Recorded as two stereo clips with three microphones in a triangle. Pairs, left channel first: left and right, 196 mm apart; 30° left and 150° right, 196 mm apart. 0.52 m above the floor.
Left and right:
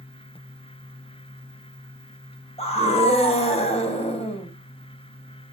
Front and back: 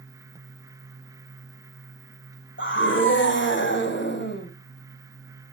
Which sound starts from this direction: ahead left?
A scream, at 2.6 s.